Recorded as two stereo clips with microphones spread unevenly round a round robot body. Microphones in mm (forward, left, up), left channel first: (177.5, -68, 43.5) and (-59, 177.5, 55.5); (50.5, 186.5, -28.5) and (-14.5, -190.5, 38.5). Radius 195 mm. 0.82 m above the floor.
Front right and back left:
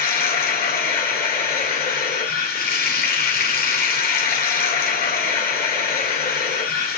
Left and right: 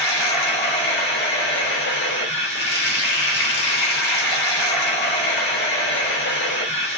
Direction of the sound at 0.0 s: 20° left.